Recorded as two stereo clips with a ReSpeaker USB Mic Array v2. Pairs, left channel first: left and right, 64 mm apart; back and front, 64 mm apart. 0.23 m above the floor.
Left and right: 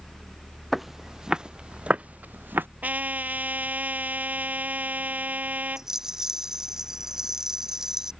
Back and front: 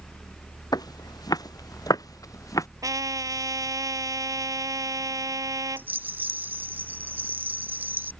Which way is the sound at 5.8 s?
15° right.